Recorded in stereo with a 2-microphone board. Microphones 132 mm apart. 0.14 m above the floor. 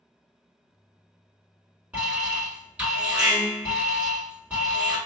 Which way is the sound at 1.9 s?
10° right (ahead or behind).